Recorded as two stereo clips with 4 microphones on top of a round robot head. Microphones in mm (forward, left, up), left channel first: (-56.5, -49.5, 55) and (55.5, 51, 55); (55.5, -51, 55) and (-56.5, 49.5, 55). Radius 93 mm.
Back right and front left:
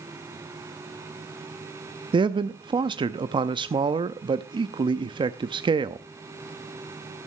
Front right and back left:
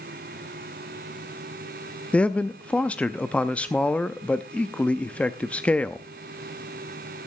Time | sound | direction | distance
2.1 | a man speaking | 35° left | 0.6 m